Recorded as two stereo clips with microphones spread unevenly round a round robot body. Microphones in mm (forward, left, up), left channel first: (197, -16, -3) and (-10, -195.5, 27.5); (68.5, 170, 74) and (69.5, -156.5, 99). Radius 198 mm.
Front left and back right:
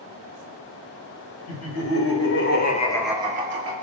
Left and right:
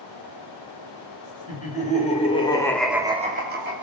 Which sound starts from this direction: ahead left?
Laughter, at 1.5 s.